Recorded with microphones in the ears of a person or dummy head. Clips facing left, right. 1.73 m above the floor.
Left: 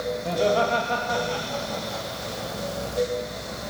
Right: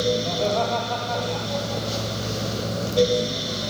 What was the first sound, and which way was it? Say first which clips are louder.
Laughter: left 1 dB; 15° left (ahead or behind).